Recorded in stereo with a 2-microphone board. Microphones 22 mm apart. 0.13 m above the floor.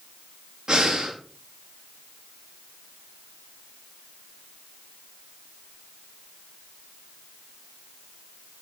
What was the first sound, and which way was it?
Breathing, 30° right (ahead or behind).